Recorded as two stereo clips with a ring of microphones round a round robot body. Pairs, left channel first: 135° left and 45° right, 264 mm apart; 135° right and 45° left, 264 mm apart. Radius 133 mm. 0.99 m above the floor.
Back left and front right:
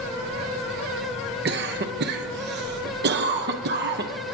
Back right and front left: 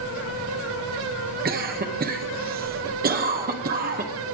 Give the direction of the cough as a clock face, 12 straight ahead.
12 o'clock.